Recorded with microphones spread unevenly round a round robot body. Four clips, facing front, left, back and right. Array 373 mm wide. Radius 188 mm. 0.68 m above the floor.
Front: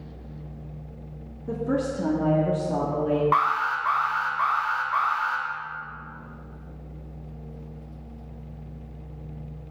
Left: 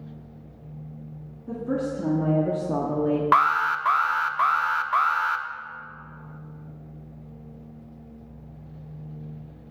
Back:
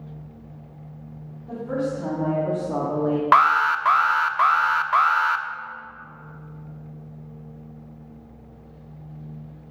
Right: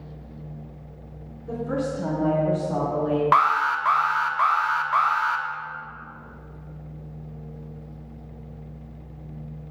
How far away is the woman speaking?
About 1.9 m.